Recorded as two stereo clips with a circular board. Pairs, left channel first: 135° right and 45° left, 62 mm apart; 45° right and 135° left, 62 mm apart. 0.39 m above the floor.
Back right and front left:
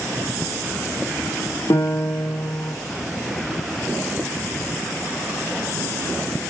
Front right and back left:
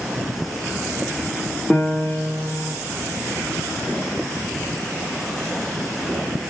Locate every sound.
1.7 s a piano: 120° right, 9.5 m